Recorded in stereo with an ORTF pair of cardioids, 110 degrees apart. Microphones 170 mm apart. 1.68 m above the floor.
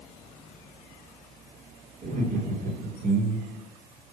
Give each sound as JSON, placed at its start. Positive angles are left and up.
{"t": 2.0, "sound": "laughter", "azimuth_deg": -55, "distance_m": 4.0}